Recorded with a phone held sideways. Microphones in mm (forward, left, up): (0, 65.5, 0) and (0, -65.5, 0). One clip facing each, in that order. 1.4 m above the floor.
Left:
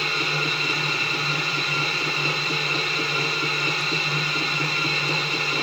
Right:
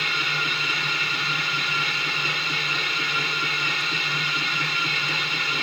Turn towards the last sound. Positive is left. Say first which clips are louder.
# left 3 dB
turn(degrees=40)  # may be behind; listen again after turning